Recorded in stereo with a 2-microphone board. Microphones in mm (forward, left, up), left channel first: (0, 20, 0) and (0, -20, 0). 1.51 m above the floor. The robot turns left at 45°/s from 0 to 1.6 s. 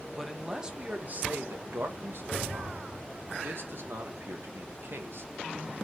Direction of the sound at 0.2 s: Straight ahead.